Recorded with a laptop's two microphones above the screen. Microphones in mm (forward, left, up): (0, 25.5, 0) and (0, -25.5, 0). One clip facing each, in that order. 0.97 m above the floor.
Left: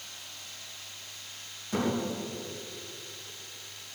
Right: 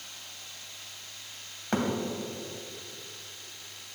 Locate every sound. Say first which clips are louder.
1.7 s a thud: right 2 dB; 65° right (ahead or behind), 3 m